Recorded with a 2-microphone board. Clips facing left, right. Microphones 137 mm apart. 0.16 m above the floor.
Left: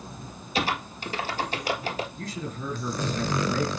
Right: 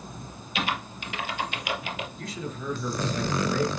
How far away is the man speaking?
About 3 m.